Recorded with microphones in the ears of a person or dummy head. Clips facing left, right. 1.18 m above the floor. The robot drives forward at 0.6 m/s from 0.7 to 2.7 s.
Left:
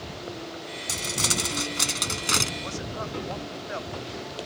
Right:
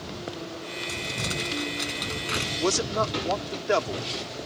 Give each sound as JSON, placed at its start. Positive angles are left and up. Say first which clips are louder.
{"t": 0.9, "sound": "crumpling", "louder": "left 3 dB", "side_deg": 60}
{"t": 2.6, "sound": "a man speaking", "louder": "right 8 dB", "side_deg": -85}